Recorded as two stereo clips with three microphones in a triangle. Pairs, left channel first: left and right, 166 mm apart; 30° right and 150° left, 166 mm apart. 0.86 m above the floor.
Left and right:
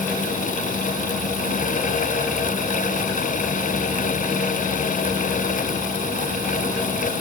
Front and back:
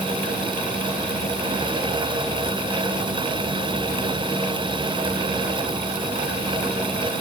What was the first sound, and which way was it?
Only background noise.